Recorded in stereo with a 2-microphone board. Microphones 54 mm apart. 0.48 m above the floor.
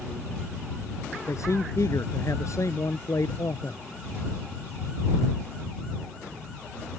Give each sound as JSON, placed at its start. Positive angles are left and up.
{"t": 1.3, "sound": "a man speaking", "side_deg": 65}